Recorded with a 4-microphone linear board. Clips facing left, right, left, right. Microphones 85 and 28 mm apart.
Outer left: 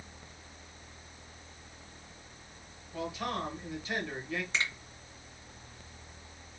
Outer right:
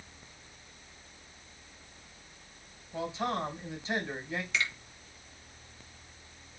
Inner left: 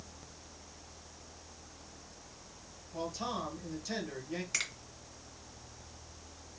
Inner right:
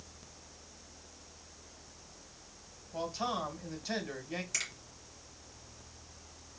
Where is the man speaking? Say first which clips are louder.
Outer right 3 dB, inner right 2 dB; 25° right (ahead or behind), 1.6 m.